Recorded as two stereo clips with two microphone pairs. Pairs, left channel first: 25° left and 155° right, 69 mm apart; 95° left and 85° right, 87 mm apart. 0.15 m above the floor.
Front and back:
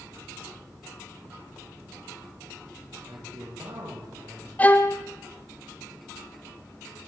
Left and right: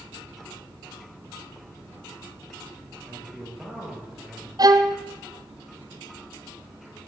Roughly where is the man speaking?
Behind.